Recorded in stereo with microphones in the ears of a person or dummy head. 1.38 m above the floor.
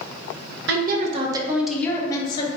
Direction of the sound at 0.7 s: 55° right (ahead or behind).